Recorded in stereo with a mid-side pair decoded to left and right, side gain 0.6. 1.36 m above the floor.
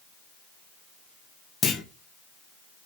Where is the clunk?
40° left, 1.2 m.